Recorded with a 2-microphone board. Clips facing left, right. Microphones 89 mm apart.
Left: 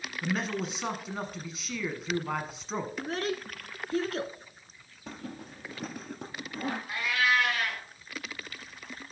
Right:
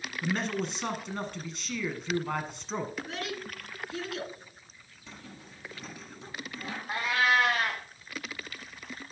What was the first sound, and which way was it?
A man speaking, 5° left (ahead or behind).